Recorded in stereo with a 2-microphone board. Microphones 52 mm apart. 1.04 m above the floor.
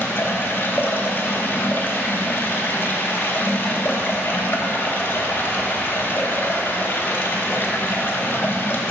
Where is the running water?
40° left (ahead or behind), 0.7 m.